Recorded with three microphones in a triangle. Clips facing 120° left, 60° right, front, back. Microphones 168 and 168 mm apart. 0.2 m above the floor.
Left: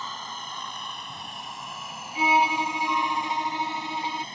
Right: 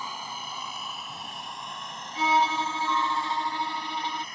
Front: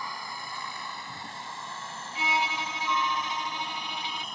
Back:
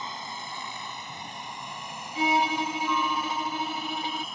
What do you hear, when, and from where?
0.0 s a helicopter: 130° right; by 4.3 s 90° left
2.1 s a violin: 165° right